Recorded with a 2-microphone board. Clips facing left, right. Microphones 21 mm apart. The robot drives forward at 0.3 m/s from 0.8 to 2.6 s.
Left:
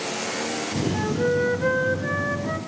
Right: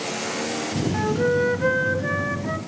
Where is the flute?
15° right (ahead or behind), 0.8 m; by 2.6 s 10° right (ahead or behind), 1.3 m.